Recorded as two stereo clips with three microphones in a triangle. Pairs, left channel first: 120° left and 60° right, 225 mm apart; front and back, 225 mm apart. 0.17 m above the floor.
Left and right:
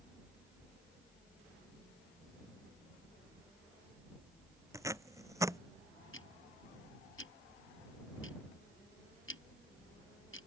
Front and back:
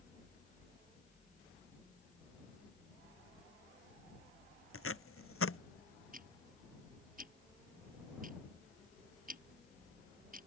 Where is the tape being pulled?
15° left.